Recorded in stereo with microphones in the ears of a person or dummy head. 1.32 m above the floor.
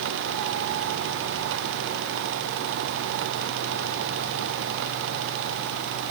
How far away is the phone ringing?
I don't hear a phone ringing.